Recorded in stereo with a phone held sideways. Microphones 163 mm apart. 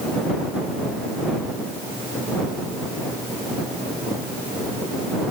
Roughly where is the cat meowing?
I don't hear a cat meowing.